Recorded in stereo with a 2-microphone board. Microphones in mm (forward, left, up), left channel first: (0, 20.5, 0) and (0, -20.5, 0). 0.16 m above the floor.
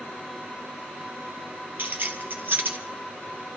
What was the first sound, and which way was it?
Keys jangling, 60° right (ahead or behind).